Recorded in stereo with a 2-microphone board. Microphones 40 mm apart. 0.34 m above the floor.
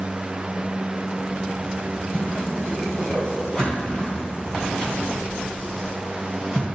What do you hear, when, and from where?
2.1 s a whoosh: 15° left (ahead or behind), 3 m